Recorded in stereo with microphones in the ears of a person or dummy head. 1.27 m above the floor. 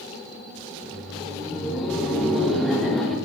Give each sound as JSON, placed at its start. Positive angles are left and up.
{"t": 0.7, "sound": "laughter", "side_deg": 0, "distance_m": 3.5}